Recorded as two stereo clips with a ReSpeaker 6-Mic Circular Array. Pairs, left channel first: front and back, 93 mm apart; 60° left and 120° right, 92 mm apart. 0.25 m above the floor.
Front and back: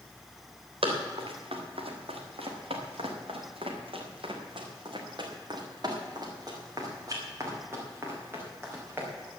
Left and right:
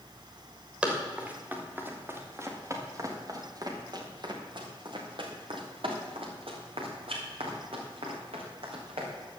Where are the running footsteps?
160° left, 4 m; by 9.1 s 115° right, 5.5 m.